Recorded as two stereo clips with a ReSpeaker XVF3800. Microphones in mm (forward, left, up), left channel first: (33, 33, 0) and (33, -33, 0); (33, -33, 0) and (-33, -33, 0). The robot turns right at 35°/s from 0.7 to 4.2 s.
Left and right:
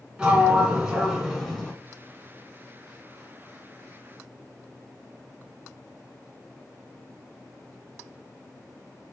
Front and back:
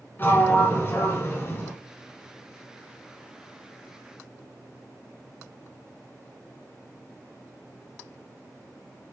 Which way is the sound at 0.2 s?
20° right.